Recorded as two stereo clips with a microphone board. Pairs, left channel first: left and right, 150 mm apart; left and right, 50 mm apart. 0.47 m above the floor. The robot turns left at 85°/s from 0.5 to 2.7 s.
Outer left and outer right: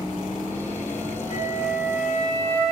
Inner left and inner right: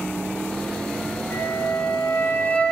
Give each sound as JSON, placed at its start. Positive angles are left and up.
{"t": 1.3, "sound": "a flute", "azimuth_deg": 145, "distance_m": 4.0}